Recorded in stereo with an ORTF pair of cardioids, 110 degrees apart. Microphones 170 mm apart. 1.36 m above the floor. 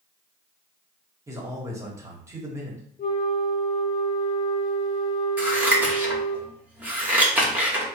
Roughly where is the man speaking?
Ahead.